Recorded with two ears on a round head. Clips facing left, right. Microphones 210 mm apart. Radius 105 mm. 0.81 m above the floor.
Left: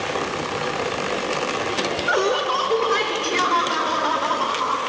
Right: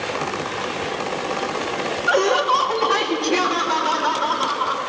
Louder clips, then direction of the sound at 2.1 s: Right 4 dB; 65° right (ahead or behind).